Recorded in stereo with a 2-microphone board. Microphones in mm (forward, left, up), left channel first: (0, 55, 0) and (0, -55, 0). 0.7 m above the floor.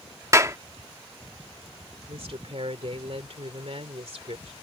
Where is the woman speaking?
65° right (ahead or behind).